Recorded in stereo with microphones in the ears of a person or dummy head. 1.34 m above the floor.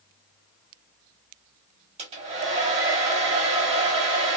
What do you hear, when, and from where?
2.0 s a hair dryer: 30° right (ahead or behind), 1.2 m